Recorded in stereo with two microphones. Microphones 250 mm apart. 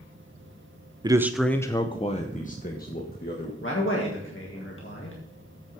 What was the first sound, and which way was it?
A man speaking, 15° right (ahead or behind).